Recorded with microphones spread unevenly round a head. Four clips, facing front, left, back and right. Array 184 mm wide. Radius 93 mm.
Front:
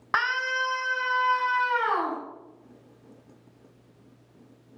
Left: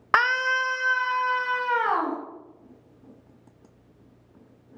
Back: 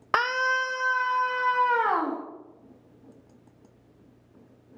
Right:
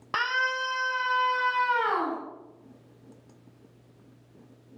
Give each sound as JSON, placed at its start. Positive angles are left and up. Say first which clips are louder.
{"t": 0.1, "sound": "a scream", "louder": "left 6 dB, back 2 dB", "azimuth_deg": 155, "distance_m": 0.8}